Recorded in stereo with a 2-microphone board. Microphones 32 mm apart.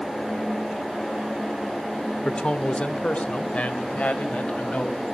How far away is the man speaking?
About 0.9 m.